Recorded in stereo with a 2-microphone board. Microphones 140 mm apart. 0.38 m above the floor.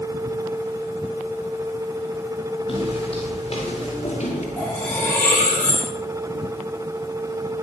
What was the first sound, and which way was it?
Footsteps, 40° left (ahead or behind).